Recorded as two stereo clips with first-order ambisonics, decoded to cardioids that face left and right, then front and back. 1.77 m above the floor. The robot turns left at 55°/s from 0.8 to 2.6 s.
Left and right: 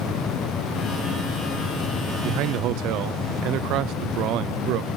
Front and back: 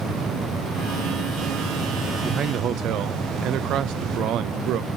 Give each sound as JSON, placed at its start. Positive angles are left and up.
{"t": 2.2, "sound": "a man speaking", "azimuth_deg": -110, "distance_m": 0.6}